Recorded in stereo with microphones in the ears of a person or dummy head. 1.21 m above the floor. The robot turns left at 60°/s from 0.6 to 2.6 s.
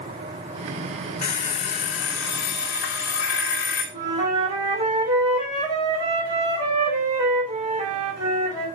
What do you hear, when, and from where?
1.2 s an alarm clock: 145° left, 2 m; by 3.8 s 65° left, 2 m
3.9 s a flute: 60° right (ahead or behind), 4.5 m